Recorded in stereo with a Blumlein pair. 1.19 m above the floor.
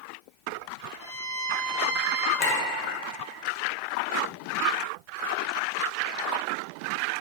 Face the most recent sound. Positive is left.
turn(degrees=35)